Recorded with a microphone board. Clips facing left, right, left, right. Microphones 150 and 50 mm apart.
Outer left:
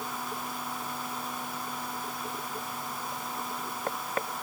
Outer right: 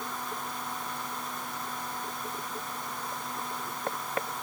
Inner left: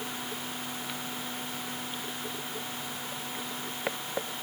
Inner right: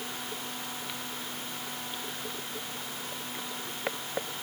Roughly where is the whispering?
No whispering in this recording.